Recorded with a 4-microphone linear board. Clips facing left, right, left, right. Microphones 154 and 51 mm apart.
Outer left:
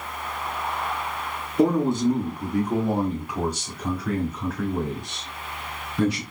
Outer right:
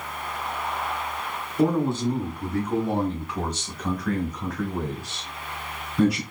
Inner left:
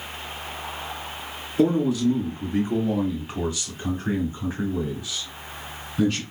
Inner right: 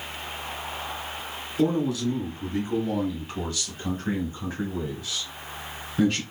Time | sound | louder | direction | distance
1.6 | a man speaking | outer left 2 dB, inner left 4 dB | 20° left (ahead or behind) | 2 m